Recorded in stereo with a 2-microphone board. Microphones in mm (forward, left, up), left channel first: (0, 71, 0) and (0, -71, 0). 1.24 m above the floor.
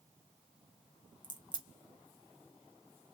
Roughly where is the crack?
Left.